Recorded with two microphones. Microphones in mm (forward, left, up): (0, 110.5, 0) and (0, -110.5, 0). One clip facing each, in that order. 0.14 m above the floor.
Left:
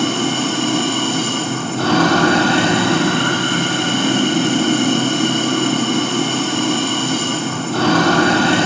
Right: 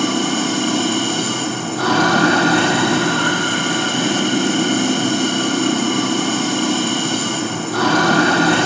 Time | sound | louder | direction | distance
0.0 | running water | even | 25° left (ahead or behind) | 3.5 m